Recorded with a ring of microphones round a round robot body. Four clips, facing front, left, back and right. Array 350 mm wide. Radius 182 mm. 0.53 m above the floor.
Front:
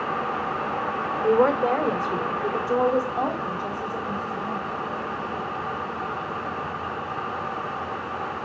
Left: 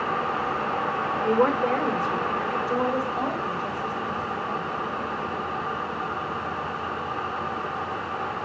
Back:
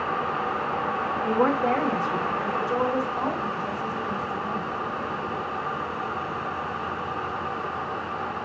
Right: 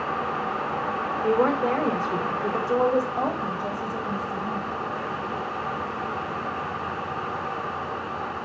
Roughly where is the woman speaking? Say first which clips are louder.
Even, front 4 dB; ahead.